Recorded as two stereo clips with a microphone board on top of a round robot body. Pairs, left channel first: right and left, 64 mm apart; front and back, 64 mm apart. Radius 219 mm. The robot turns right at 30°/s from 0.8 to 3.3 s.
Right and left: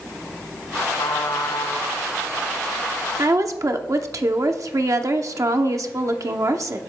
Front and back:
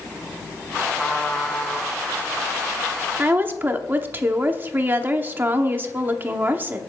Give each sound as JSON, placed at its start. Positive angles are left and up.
{"t": 1.0, "sound": "a trumpet", "azimuth_deg": -85, "distance_m": 4.0}
{"t": 3.2, "sound": "a woman speaking", "azimuth_deg": 120, "distance_m": 0.9}